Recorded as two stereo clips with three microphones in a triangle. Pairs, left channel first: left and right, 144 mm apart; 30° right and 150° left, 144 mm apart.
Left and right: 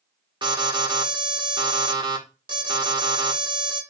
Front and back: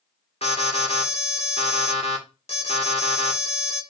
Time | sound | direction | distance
0.4 | an alarm | 45° right | 2 m